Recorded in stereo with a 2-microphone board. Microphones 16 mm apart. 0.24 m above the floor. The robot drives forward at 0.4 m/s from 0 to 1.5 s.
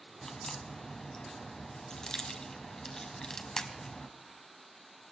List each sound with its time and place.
0.2 s a crack: 40° left (ahead or behind), 1.3 m; by 4.1 s 45° left (ahead or behind), 1.2 m